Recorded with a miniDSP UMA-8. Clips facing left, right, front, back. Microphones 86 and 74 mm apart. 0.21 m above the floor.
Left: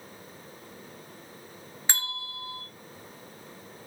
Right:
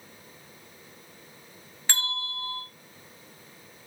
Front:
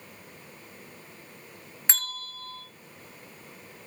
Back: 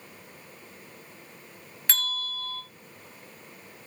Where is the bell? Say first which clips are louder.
Right 3 dB, back 3 dB; 35° left, 1.3 m.